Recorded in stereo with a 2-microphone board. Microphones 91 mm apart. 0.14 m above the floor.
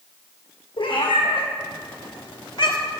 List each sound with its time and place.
0.8 s a cat meowing: 80° left, 1.8 m; by 2.8 s 60° left (ahead or behind), 0.7 m